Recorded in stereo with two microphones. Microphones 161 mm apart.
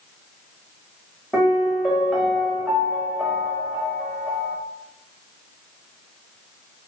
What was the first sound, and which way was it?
A piano, centre (ahead or behind).